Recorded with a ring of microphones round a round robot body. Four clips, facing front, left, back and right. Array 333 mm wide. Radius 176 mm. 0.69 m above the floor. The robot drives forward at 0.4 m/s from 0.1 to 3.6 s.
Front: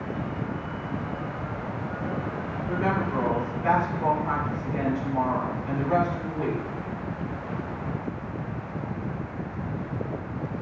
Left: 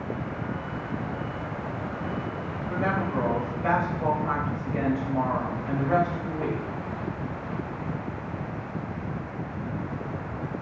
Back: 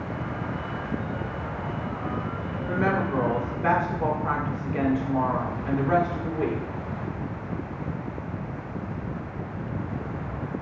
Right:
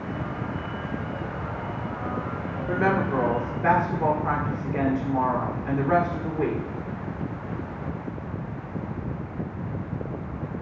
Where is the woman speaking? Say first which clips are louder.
Right 4 dB, back 2 dB; 110° right, 2.0 m; by 6.6 s 120° right, 2 m.